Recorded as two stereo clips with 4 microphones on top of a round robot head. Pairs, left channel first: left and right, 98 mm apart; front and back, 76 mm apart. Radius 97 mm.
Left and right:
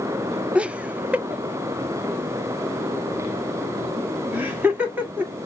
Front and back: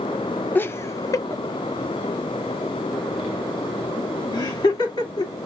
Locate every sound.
0.6 s laughter: 25° right, 0.7 m; by 5.3 s 15° right, 3.5 m